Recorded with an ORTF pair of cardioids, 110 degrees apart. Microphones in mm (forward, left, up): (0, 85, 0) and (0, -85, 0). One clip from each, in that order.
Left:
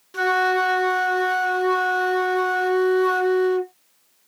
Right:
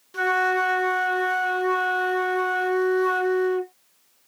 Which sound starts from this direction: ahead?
A flute, at 0.1 s.